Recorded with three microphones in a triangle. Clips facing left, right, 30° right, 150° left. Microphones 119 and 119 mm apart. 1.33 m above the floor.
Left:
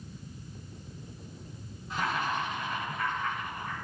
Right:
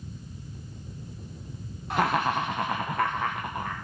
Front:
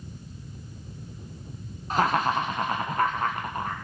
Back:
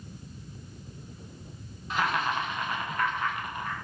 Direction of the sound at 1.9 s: 80° right.